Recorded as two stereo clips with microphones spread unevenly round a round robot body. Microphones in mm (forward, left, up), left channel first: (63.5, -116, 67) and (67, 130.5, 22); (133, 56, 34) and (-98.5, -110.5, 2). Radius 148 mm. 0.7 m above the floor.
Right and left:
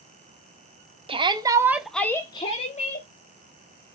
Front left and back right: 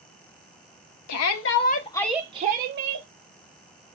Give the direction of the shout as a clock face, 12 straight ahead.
11 o'clock.